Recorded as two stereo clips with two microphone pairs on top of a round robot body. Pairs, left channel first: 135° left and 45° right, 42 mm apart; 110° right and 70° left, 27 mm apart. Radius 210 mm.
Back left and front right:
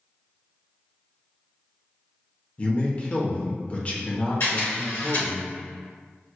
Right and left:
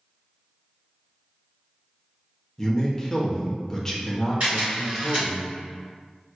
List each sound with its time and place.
2.6 s a man speaking: 175° left, 1.0 m
4.4 s a camera shutter: 110° left, 1.8 m